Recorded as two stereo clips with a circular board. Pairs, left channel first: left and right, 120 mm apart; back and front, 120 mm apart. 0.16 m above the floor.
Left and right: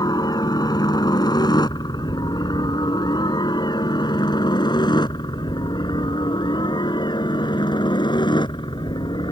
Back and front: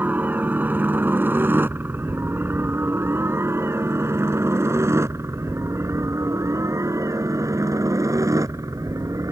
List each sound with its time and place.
0.0 s a helicopter: 65° left; by 9.3 s 55° left